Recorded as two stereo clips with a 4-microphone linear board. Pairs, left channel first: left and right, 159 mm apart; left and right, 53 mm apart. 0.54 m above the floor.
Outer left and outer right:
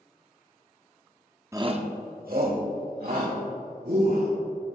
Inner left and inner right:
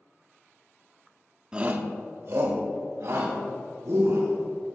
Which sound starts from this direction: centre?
A shout, at 1.5 s.